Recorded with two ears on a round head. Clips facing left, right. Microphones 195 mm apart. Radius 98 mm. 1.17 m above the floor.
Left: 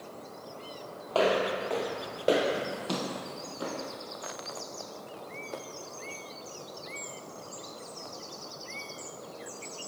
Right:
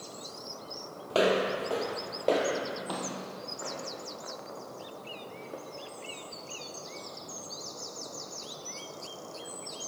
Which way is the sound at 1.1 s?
20° right (ahead or behind).